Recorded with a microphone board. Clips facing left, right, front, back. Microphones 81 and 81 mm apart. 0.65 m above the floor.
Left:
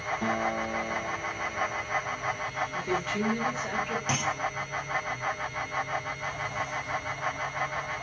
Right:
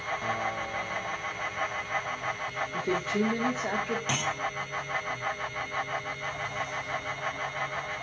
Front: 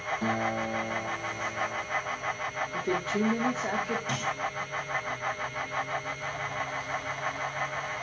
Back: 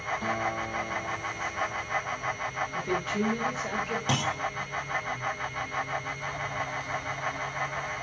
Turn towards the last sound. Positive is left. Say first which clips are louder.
# left 1 dB, back 3 dB
turn(degrees=175)